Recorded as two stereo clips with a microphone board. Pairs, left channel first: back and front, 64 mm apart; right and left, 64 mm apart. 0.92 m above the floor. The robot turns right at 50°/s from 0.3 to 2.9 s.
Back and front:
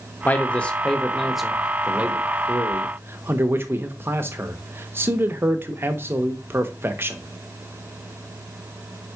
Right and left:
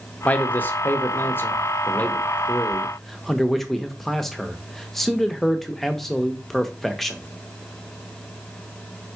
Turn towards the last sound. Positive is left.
turn(degrees=-10)